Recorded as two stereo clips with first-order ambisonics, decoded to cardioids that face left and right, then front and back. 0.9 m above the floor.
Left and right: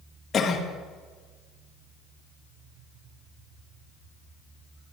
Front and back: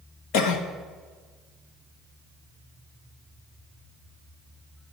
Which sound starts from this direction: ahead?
A cough, at 0.3 s.